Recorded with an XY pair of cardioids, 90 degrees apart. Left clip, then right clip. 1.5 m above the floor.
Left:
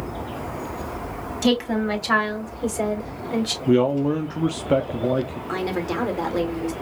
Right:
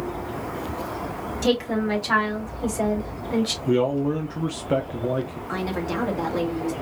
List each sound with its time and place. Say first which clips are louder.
1.4 s a woman speaking: left 1 dB; 40° left, 2 m; by 3.6 s 5° left, 2 m
3.7 s a man speaking: left 4 dB; 30° left, 0.5 m
5.5 s a woman speaking: left 2 dB; 20° left, 1.5 m